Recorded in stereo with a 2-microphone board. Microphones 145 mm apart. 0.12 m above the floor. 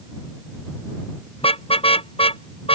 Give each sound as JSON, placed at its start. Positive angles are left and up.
{"t": 1.4, "sound": "a car horn", "side_deg": 40}